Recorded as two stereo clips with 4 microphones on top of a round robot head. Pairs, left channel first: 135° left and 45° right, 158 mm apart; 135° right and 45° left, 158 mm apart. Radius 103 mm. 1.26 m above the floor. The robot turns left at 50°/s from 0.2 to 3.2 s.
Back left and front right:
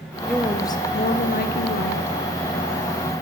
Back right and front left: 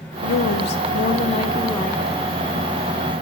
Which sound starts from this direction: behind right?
A woman speaking, at 0.2 s.